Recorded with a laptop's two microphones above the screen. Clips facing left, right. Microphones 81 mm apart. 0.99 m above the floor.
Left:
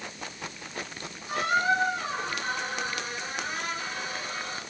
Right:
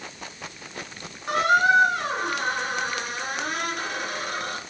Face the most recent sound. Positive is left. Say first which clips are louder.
# right 6 dB
turn(degrees=-70)  # may be behind; listen again after turning